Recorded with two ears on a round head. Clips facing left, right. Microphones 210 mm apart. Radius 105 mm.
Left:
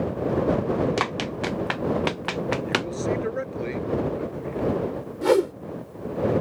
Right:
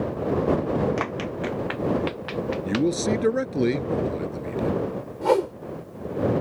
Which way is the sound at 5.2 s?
25° left (ahead or behind).